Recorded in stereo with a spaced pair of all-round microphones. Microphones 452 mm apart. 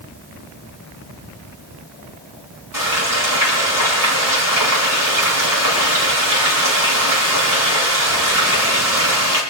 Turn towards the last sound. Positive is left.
turn(degrees=-45)  # may be behind; listen again after turning